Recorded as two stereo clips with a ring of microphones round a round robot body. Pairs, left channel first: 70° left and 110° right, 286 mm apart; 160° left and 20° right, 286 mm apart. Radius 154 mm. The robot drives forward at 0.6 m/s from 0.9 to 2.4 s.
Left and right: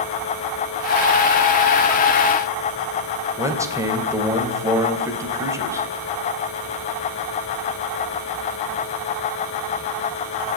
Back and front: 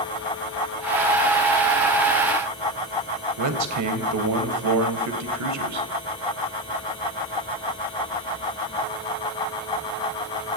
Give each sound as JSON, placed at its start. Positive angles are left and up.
{"t": 3.4, "sound": "a man speaking", "azimuth_deg": -35, "distance_m": 3.0}